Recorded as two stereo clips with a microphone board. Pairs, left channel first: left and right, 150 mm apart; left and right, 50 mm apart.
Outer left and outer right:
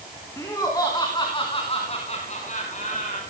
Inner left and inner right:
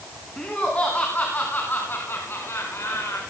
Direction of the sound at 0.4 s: 20° left (ahead or behind).